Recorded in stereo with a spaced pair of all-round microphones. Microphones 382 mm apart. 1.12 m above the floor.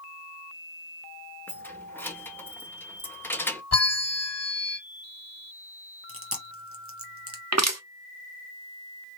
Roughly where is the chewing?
Right.